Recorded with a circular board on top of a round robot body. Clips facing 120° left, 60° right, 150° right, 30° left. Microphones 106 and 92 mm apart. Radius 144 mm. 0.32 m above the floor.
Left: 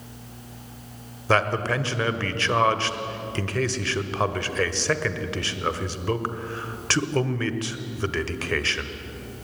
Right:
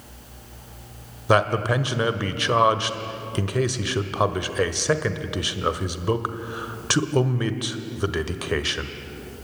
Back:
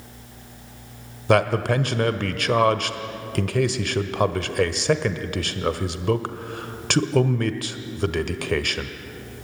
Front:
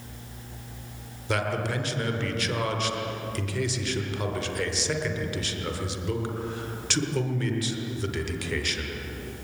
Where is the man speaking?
135° right, 1.6 m.